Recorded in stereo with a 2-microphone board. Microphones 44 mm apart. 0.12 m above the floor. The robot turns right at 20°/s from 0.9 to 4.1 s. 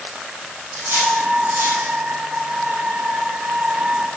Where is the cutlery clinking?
55° right (ahead or behind), 3 m; by 1.9 s 75° right (ahead or behind), 3 m.